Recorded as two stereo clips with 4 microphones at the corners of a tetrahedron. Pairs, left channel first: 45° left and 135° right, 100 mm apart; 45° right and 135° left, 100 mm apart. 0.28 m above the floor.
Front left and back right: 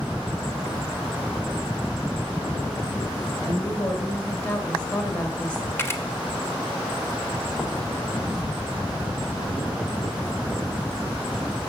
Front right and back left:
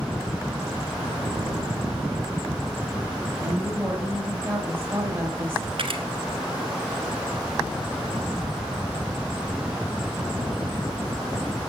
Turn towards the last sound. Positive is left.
turn(degrees=110)